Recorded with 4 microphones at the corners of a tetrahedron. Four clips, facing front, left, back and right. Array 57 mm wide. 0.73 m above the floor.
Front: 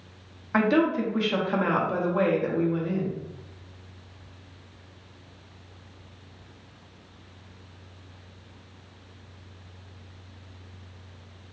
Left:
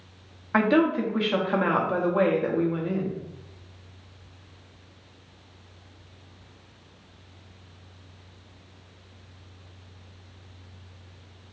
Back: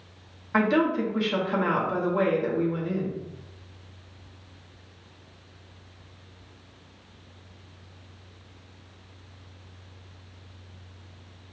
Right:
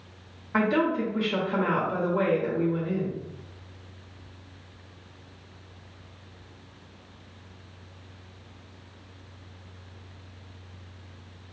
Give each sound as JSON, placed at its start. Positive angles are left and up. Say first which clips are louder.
{"t": 0.5, "sound": "a woman speaking", "louder": "left 3 dB, even", "azimuth_deg": 85, "distance_m": 1.0}